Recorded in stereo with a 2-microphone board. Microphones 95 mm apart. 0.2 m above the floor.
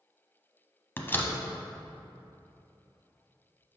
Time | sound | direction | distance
1.0 | a door slam | 25° left (ahead or behind) | 0.7 m